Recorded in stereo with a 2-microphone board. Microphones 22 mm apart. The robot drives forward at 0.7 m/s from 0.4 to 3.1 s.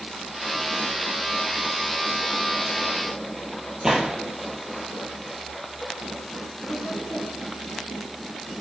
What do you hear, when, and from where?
3.8 s a gunshot: 30° right (ahead or behind), 2.5 m
6.7 s laughter: 35° left (ahead or behind), 3 m